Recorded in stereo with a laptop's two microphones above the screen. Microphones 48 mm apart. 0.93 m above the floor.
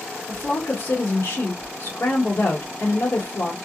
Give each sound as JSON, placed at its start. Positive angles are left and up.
{"t": 0.3, "sound": "a woman speaking", "side_deg": 50, "distance_m": 1.3}